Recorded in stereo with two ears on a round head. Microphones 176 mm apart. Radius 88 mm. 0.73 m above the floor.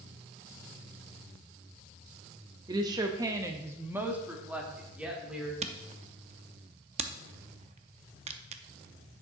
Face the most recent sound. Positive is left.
turn(degrees=-35)  # may be behind; listen again after turning